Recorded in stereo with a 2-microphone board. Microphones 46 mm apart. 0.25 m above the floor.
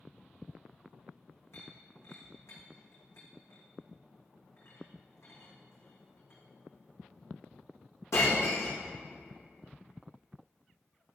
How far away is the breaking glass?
About 4.5 m.